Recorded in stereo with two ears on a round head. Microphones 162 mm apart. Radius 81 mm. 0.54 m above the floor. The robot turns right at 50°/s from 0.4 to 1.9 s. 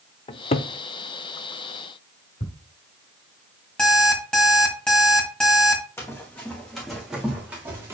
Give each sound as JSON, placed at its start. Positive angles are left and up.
{"t": 0.3, "sound": "a cupboard door", "side_deg": 30, "distance_m": 0.5}
{"t": 2.4, "sound": "ticking", "side_deg": 45, "distance_m": 1.9}
{"t": 3.8, "sound": "an alarm clock", "side_deg": 5, "distance_m": 2.0}
{"t": 6.0, "sound": "running footsteps", "side_deg": 15, "distance_m": 2.0}